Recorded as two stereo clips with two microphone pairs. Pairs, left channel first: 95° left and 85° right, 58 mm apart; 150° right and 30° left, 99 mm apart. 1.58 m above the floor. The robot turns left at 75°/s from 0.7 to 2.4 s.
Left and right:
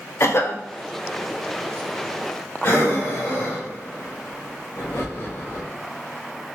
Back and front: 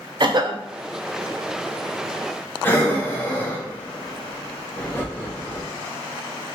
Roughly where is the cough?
Ahead left.